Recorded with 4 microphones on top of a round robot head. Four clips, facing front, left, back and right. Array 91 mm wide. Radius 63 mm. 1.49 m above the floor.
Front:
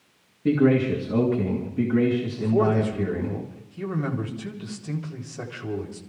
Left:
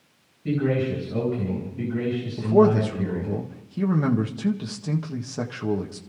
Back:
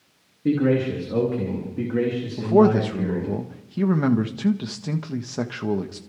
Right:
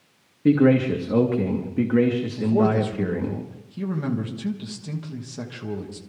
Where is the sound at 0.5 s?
90° right, 3 m.